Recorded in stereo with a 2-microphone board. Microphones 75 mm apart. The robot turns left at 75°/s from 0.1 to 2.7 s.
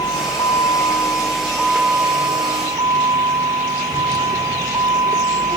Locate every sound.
0.0 s a vehicle: 115° left; by 5.6 s 80° right